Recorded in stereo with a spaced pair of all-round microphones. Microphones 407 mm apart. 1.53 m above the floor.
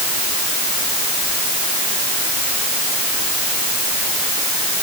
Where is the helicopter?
I don't hear a helicopter.